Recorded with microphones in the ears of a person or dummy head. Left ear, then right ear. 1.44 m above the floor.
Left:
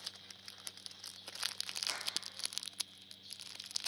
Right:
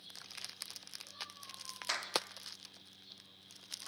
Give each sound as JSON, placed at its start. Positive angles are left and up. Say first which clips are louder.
{"t": 1.9, "sound": "a clap", "louder": "right 2 dB", "side_deg": -70, "distance_m": 3.0}